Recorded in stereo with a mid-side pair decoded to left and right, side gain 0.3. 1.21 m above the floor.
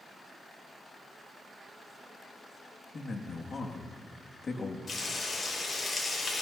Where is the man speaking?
50° left, 2 m.